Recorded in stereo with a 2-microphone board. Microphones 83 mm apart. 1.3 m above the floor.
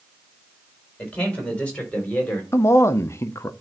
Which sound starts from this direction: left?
A man speaking, at 2.5 s.